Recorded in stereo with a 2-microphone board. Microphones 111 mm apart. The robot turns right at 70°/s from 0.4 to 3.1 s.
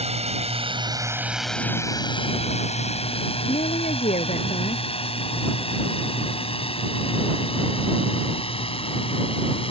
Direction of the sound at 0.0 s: 70° right (ahead or behind).